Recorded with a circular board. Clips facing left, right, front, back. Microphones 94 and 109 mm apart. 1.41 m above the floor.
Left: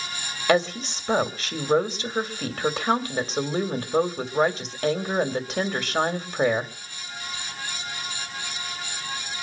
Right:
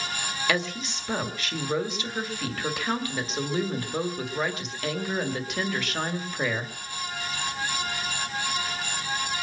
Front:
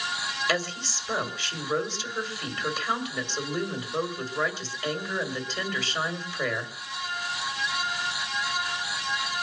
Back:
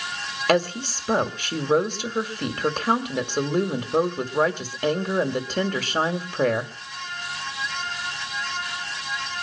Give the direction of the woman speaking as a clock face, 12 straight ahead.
7 o'clock.